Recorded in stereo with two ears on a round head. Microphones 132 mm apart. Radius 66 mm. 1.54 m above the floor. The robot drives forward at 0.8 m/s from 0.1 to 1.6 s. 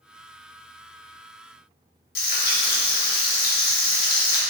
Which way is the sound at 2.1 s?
70° left (ahead or behind).